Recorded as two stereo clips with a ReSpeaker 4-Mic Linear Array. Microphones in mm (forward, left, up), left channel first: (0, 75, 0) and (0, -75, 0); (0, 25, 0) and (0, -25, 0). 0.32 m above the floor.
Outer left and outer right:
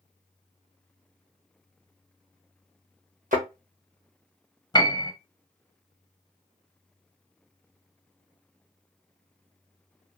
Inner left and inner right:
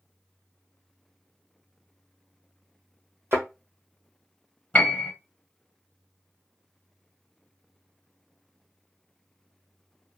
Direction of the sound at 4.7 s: 25° left (ahead or behind).